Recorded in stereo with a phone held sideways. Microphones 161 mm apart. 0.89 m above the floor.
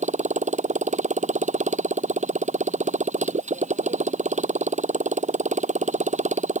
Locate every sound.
0.0 s a motorcycle: 50° right (ahead or behind)